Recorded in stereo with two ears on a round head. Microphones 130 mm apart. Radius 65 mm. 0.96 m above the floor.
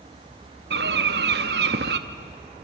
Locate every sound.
0.7 s a bird: 80° right, 1.0 m